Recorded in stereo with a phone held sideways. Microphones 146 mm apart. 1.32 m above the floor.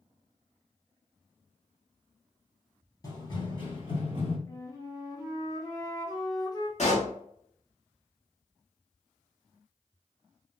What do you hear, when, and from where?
3.0 s running footsteps: 25° left (ahead or behind), 1.6 m; by 4.4 s 50° left (ahead or behind), 2.0 m
4.5 s a flute: 25° left (ahead or behind), 1.0 m
6.8 s a pop: 55° left (ahead or behind), 1.2 m